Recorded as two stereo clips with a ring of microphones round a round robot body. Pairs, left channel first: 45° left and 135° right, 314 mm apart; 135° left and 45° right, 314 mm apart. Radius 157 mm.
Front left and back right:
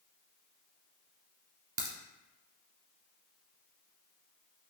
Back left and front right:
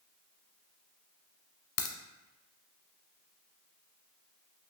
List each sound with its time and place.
1.8 s a crack: 160° left, 0.9 m